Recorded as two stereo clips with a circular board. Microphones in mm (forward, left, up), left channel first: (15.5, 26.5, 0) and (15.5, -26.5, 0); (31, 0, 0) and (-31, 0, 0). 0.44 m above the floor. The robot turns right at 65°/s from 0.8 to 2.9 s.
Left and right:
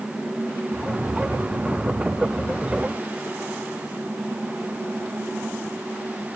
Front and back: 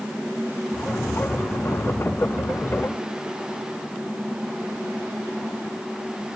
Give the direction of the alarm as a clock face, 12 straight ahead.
No alarm in this recording.